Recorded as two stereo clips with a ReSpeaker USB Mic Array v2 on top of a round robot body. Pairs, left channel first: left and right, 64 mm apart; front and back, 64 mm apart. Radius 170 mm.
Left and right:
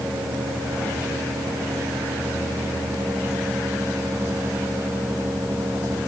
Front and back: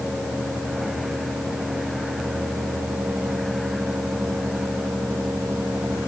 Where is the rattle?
No rattle in this recording.